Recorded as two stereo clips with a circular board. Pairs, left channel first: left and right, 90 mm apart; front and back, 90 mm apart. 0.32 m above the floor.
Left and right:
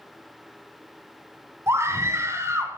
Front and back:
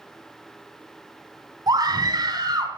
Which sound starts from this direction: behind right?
A scream, at 1.7 s.